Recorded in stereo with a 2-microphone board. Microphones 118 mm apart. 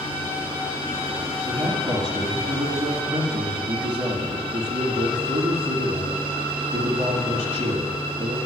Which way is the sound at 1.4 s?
40° right (ahead or behind).